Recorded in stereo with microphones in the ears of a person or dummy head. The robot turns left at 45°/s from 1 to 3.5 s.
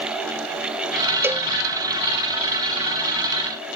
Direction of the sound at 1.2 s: 10° right (ahead or behind).